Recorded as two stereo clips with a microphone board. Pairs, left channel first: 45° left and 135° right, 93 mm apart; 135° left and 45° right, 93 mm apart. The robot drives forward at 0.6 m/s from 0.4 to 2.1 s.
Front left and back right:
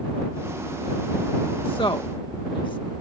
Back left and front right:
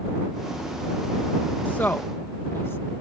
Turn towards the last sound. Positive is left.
turn(degrees=70)